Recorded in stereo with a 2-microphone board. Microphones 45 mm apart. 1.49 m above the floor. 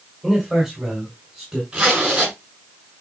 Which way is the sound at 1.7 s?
20° right (ahead or behind).